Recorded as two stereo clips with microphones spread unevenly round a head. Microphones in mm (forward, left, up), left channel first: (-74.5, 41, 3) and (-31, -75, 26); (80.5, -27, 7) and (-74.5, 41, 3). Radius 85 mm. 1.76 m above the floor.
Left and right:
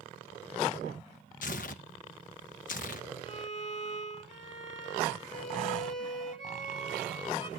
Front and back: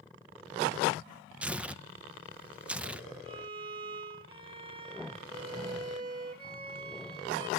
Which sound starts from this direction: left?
Tearing paper, at 1.4 s.